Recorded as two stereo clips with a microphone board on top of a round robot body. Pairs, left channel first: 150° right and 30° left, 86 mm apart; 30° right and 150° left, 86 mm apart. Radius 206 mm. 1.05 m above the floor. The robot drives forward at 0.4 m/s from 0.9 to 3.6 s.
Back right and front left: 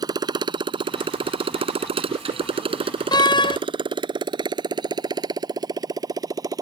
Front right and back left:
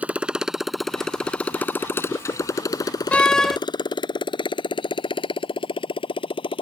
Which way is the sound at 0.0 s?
75° left.